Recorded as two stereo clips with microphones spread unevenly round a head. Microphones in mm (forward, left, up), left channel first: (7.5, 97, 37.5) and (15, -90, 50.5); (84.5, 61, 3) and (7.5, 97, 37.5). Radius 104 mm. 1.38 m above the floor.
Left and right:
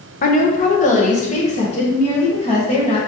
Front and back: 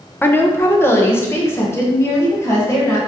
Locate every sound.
0.2 s a woman speaking: 45° left, 0.9 m; by 3.0 s 35° left, 2.5 m